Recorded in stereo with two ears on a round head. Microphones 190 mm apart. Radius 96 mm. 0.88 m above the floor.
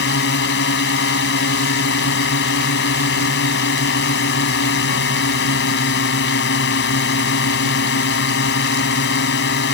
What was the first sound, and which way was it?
A drone, 60° left (ahead or behind).